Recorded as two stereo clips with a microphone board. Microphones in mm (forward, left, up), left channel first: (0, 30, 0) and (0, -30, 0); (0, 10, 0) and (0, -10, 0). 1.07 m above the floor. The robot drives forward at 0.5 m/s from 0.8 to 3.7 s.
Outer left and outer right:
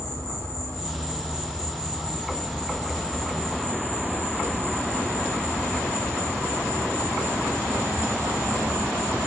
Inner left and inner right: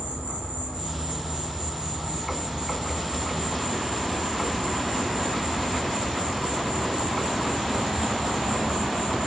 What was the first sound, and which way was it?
An insect, 55° right (ahead or behind).